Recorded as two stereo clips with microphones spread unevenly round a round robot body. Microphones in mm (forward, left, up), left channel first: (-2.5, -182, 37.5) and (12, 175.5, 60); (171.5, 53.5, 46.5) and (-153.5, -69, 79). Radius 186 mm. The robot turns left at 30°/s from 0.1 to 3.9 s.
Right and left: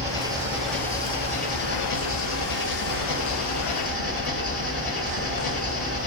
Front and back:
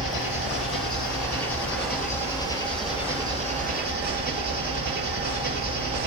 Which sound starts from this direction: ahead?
An engine running, at 0.0 s.